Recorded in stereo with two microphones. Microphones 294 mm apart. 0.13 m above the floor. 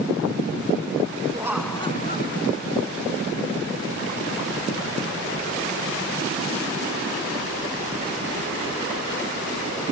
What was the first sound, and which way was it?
Laughter, 15° right (ahead or behind).